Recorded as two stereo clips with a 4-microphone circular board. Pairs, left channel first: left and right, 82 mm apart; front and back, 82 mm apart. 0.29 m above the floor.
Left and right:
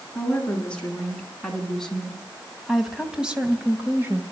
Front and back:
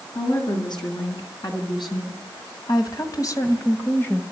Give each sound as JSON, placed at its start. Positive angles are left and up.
{"t": 0.1, "sound": "a woman speaking", "azimuth_deg": 15, "distance_m": 5.0}